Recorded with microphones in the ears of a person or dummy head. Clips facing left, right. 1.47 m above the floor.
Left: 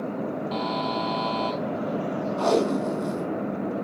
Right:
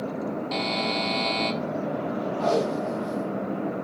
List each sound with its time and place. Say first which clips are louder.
0.5 s a buzzer: even; 30° right (ahead or behind), 1.3 m
2.4 s tape being pulled: left 2 dB; 70° left (ahead or behind), 3 m